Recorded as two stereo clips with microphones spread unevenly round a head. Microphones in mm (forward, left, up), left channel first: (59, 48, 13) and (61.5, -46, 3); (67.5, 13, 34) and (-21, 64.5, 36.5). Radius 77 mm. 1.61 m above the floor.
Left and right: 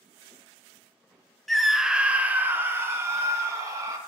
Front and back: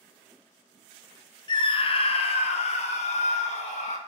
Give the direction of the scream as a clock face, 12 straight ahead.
12 o'clock.